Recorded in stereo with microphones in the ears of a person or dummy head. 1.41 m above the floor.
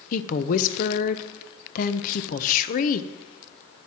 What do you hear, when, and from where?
0.1 s a woman speaking: 45° left (ahead or behind), 0.7 m